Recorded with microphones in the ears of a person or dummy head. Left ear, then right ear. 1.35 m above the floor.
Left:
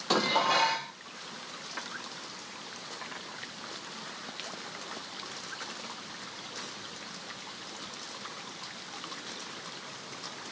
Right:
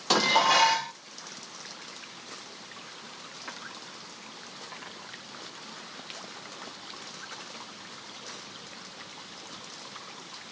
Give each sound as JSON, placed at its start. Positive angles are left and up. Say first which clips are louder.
{"t": 0.1, "sound": "dishes clattering", "louder": "right 4 dB", "side_deg": -20, "distance_m": 0.5}